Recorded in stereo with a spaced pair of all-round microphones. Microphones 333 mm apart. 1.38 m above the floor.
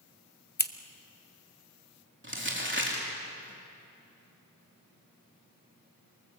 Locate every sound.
0.6 s scissors: 30° left (ahead or behind), 0.8 m
2.2 s crumpling: 35° right (ahead or behind), 3.5 m